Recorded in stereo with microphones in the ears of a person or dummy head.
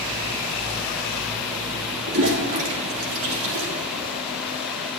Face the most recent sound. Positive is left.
turn(degrees=-60)  # may be behind; listen again after turning